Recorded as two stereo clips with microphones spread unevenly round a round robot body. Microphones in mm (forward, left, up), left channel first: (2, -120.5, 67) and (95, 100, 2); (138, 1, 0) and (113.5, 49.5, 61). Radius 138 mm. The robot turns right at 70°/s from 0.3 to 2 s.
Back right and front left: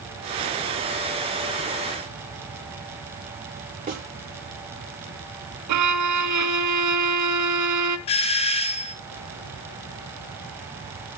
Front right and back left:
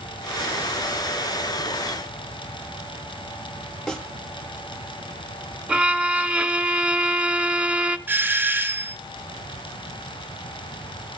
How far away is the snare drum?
About 7.5 m.